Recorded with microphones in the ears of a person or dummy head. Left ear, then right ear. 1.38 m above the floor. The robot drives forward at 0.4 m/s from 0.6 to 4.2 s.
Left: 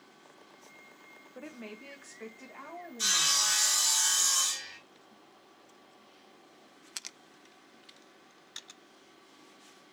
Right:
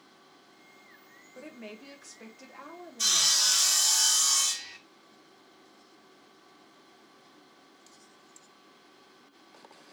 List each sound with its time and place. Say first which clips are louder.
1.4 s a woman speaking: right 1 dB; 15° left (ahead or behind), 0.7 m; by 3.6 s 5° left (ahead or behind), 1.6 m
3.0 s sawing: right 3 dB; 5° left (ahead or behind), 0.7 m; by 4.8 s centre (ahead or behind), 1.2 m